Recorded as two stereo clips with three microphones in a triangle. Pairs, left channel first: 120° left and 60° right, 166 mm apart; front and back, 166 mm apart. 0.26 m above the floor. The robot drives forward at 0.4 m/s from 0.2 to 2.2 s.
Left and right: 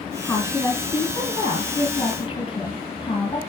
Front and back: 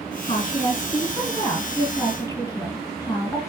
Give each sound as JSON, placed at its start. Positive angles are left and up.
{"t": 0.2, "sound": "a woman speaking", "azimuth_deg": 50, "distance_m": 2.5}